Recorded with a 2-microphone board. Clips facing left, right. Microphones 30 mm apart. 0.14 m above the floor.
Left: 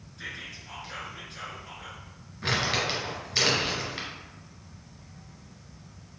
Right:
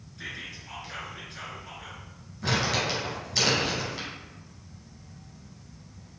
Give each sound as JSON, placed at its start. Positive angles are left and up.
{"t": 0.2, "sound": "whispering", "side_deg": 0, "distance_m": 1.6}
{"t": 2.4, "sound": "crumpling", "side_deg": 25, "distance_m": 2.0}